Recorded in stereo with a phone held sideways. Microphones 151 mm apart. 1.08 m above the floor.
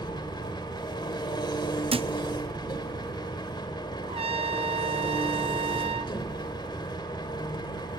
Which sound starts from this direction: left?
An engine running, at 0.0 s.